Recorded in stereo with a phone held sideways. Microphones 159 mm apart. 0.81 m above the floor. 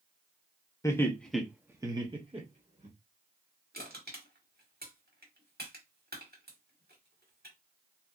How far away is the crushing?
About 1.8 m.